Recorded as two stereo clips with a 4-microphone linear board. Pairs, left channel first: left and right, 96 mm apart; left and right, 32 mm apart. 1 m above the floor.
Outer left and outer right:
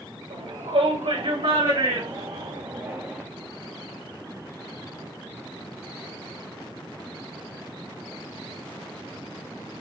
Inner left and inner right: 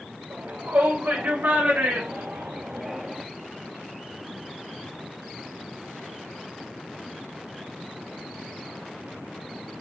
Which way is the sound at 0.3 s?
85° right.